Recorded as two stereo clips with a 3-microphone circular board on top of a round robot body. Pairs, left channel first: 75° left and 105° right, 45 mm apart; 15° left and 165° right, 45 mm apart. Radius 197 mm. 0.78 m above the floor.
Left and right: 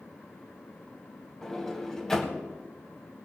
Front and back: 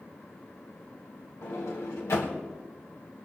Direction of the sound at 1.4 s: Straight ahead.